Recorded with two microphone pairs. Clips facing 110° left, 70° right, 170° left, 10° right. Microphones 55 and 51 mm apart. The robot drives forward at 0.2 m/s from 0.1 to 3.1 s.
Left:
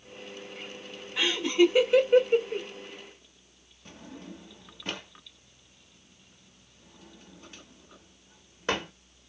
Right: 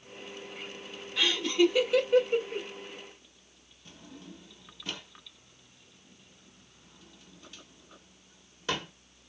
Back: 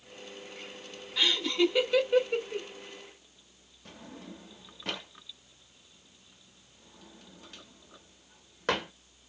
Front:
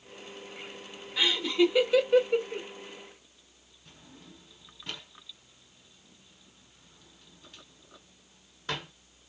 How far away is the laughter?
About 1.0 m.